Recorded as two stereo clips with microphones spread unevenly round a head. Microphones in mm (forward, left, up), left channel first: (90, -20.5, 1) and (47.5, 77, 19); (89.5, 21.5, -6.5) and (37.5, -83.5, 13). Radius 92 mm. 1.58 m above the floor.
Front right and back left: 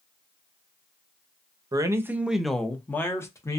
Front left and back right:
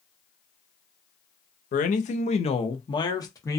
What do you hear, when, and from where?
1.7 s a man speaking: 65° left, 0.6 m; by 3.6 s 5° right, 1.1 m